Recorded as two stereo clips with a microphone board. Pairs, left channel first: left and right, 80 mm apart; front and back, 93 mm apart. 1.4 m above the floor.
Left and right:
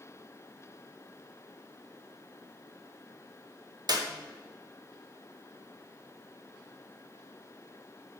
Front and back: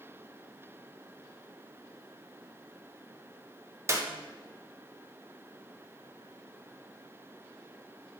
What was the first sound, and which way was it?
A clap, 120° right.